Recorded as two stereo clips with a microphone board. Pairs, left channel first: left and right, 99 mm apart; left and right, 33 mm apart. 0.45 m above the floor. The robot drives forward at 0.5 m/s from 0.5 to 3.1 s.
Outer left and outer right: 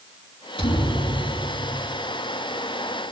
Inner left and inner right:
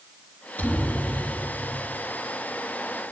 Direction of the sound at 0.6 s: 65° left (ahead or behind).